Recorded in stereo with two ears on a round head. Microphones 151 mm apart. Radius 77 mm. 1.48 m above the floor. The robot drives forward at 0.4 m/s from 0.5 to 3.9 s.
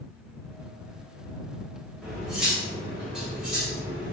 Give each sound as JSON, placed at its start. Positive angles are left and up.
{"t": 2.0, "sound": "cutlery clinking", "side_deg": -5, "distance_m": 1.7}